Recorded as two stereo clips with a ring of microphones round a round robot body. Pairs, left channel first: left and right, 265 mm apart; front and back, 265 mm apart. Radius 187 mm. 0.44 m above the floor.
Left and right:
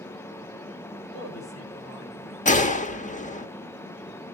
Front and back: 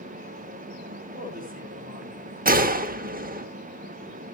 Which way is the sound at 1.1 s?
125° left.